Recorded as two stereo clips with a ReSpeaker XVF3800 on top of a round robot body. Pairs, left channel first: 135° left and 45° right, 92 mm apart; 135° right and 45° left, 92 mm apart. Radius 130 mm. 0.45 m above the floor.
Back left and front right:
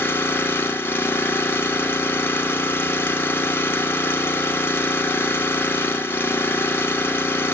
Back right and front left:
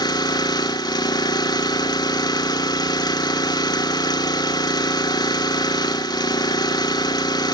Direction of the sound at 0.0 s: 165° right.